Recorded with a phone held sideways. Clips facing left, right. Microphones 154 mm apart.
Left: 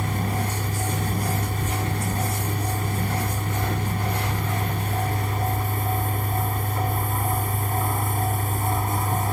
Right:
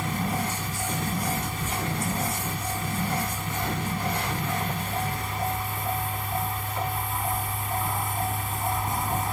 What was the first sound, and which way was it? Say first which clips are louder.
A fan: left 1 dB; 50° left (ahead or behind).